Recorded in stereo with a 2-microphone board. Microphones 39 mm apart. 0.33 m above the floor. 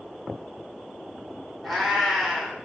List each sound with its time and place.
1.6 s a cat meowing: centre (ahead or behind), 1.0 m